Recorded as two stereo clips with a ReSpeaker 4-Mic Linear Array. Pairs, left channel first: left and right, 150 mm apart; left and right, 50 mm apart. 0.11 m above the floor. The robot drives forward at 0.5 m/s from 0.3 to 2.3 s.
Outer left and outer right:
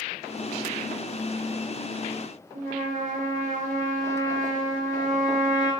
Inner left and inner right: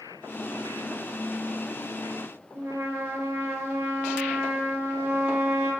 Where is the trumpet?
65° right (ahead or behind), 2.5 m.